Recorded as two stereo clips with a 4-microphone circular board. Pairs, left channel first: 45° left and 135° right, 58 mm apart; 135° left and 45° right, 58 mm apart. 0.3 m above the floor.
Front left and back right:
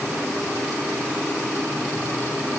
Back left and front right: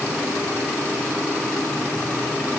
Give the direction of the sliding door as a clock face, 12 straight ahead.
No sliding door in this recording.